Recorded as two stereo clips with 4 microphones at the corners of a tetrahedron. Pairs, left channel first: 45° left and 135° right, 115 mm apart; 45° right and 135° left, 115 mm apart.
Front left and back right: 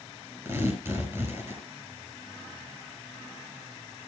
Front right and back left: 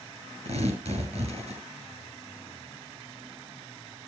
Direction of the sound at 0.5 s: 155° left.